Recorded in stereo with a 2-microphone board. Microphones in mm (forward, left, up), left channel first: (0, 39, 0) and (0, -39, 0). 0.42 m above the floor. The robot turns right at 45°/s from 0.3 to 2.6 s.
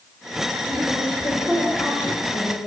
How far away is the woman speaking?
About 3 m.